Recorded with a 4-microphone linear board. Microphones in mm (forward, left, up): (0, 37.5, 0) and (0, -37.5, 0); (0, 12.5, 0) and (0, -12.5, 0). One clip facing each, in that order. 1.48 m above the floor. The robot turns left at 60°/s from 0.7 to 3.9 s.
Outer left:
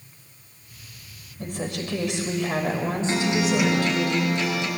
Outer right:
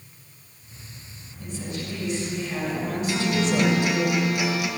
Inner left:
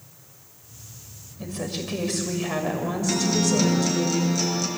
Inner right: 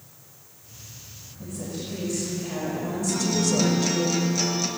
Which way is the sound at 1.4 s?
125° left.